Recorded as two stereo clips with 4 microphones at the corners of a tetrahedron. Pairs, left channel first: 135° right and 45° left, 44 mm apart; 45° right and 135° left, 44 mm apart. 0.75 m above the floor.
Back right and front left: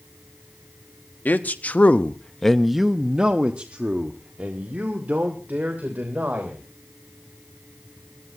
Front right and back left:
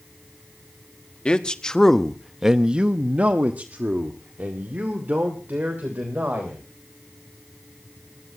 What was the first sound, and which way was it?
A man speaking, 105° right.